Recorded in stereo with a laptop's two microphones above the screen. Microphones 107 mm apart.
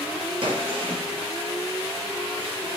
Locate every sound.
0.4 s a gunshot: 55° right (ahead or behind), 1.7 m